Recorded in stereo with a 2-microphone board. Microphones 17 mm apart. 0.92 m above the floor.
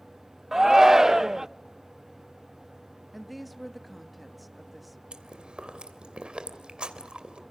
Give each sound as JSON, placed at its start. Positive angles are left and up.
{"t": 0.5, "sound": "a shout", "side_deg": -25, "distance_m": 0.5}
{"t": 3.1, "sound": "a woman speaking", "side_deg": 0, "distance_m": 1.2}
{"t": 5.1, "sound": "chewing", "side_deg": -80, "distance_m": 2.5}